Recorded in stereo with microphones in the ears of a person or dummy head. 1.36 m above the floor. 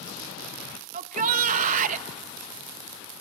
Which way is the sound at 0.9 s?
50° right (ahead or behind).